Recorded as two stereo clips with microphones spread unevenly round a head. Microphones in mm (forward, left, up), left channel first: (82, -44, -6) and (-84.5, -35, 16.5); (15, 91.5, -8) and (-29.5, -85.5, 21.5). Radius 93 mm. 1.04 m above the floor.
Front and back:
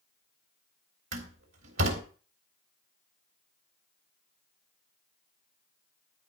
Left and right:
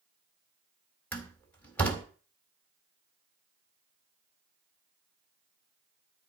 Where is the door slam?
160° left, 3.5 m.